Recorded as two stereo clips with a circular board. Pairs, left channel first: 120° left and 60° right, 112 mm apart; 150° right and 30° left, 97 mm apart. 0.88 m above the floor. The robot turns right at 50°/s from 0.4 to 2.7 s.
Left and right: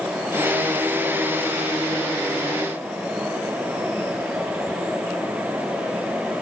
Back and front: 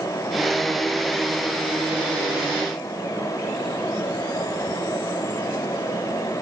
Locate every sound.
Only background noise.